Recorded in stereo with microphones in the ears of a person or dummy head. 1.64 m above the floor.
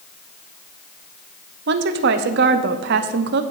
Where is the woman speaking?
60° right (ahead or behind), 0.8 m.